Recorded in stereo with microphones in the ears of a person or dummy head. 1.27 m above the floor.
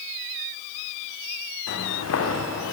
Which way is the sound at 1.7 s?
70° left (ahead or behind).